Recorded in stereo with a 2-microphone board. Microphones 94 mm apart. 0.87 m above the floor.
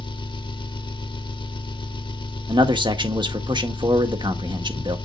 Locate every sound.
0.0 s an engine running: 55° left (ahead or behind), 1.2 m
2.5 s a man speaking: 55° right (ahead or behind), 1.5 m